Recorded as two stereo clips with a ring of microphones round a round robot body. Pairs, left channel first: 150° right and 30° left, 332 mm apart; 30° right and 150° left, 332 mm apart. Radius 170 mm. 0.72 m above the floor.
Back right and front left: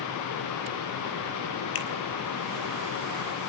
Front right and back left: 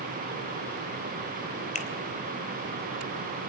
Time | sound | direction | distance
1.8 | a finger snap | 100° right | 3.5 m